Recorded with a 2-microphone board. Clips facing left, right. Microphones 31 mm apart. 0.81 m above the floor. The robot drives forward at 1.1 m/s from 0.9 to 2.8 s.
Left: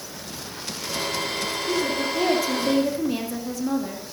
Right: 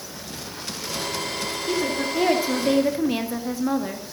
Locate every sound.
1.7 s a woman speaking: 15° right (ahead or behind), 2.5 m; by 4.1 s 30° right (ahead or behind), 1.7 m